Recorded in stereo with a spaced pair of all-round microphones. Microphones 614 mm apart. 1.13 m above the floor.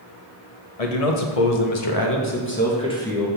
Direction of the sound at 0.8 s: 70° left (ahead or behind).